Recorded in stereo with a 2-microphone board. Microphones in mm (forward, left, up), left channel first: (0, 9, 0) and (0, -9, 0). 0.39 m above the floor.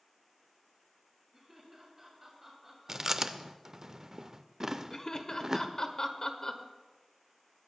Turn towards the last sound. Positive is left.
turn(degrees=35)  # may be behind; listen again after turning